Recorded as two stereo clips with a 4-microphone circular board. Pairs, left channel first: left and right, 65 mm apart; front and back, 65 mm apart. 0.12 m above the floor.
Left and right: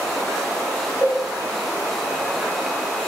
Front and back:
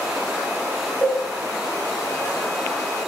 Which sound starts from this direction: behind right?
A cowbell, at 1.0 s.